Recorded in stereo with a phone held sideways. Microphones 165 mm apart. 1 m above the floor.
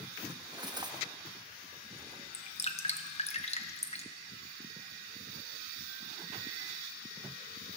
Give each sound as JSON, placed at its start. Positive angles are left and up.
{"t": 0.3, "sound": "cutlery clinking", "side_deg": -25, "distance_m": 0.7}
{"t": 2.3, "sound": "dripping", "side_deg": 40, "distance_m": 0.7}